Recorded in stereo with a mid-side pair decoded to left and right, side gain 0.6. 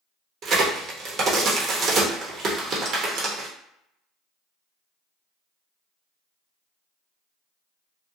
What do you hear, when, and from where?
0.4 s a crack: 45° right, 1.0 m